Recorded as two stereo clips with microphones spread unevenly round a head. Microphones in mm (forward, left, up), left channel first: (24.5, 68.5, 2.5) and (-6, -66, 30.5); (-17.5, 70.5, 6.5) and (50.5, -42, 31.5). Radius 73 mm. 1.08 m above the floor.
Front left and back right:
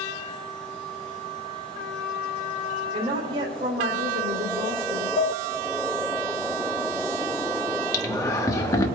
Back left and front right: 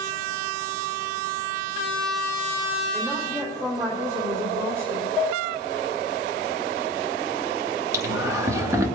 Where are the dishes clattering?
35° left, 3.5 m.